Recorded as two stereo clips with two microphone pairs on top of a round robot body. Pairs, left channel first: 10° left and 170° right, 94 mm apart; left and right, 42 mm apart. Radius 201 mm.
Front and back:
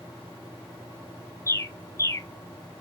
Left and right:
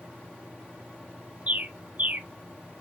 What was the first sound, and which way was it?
A bird, 50° right.